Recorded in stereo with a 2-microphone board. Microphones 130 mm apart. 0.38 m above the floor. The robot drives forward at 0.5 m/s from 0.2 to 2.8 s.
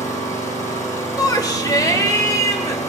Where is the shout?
30° left (ahead or behind), 1.2 m; by 2.8 s 25° left (ahead or behind), 1.5 m.